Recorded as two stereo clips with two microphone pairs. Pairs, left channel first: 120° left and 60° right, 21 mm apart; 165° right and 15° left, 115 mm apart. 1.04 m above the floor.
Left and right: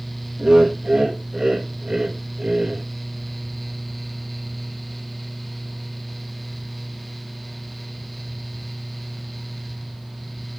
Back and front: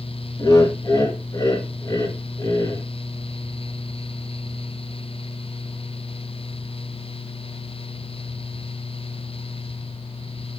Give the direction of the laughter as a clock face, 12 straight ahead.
4 o'clock.